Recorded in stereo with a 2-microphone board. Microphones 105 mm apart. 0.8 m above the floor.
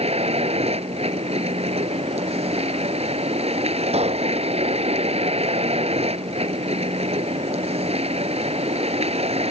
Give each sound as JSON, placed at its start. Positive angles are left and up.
{"t": 0.0, "sound": "a vehicle", "side_deg": -80}
{"t": 3.9, "sound": "a pop", "side_deg": -80}